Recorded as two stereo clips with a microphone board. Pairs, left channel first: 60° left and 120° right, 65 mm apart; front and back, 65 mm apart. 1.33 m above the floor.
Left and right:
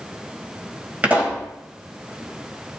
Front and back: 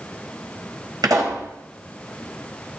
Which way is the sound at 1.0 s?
175° left.